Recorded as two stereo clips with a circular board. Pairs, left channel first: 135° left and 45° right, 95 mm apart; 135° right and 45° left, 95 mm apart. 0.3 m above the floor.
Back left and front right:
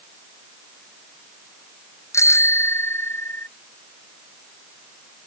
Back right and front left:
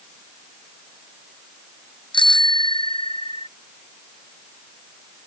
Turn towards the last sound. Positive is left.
turn(degrees=-160)